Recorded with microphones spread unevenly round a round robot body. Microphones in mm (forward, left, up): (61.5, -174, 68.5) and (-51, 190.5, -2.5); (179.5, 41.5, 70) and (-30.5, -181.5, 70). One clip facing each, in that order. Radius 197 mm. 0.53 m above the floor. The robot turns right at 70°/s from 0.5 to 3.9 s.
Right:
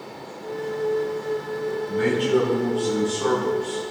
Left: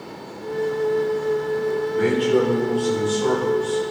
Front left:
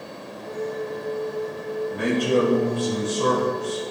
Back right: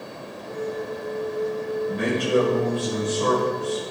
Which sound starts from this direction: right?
A man speaking, at 1.9 s.